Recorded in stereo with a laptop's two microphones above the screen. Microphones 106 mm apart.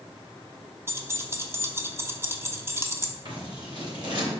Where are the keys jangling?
25° right (ahead or behind), 1.2 m.